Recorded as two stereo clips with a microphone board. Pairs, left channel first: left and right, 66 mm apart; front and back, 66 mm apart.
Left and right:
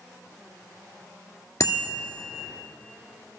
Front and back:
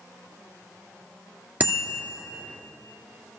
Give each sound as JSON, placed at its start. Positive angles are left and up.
{"t": 1.6, "sound": "a bicycle bell", "azimuth_deg": 120, "distance_m": 2.0}